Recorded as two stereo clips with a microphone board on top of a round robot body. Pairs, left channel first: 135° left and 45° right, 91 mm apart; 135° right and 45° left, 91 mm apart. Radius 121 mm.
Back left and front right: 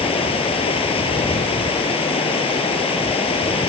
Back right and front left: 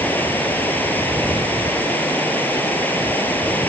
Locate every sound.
0.0 s running water: 155° left